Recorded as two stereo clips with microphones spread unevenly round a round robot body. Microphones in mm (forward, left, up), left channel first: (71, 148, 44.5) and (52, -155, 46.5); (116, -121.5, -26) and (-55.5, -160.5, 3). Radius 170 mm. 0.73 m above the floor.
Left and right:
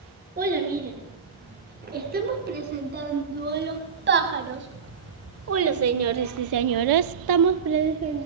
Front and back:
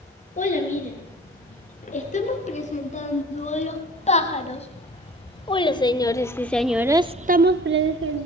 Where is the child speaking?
30° right, 8.5 m; by 8.3 s 170° right, 1.5 m.